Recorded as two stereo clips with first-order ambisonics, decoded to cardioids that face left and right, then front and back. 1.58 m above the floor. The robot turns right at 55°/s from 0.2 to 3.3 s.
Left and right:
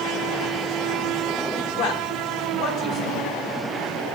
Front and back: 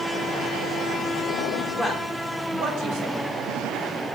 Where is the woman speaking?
90° left, 1.9 m; by 3.3 s 175° left, 1.9 m.